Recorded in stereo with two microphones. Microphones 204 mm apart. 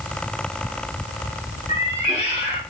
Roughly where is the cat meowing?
Left.